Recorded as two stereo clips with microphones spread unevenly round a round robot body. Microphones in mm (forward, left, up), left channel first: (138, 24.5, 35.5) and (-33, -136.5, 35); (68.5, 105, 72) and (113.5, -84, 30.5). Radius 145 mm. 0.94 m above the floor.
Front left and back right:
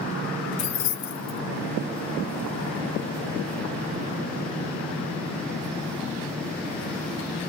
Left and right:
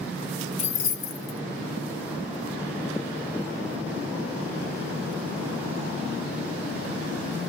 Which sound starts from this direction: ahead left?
Keys jangling, at 0.6 s.